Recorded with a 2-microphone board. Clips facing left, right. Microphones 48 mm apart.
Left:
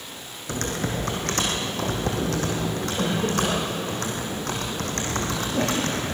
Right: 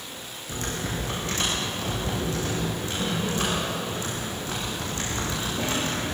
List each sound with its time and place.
0.5 s typing on a keyboard: 70° left (ahead or behind), 4.5 m